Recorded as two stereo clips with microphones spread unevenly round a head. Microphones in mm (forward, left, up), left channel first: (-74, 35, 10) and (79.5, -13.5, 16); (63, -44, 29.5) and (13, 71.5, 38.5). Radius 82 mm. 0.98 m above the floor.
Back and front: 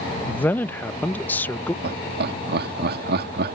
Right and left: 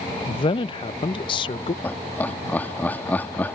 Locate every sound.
0.3 s a man speaking: 120° right
1.8 s laughter: 10° left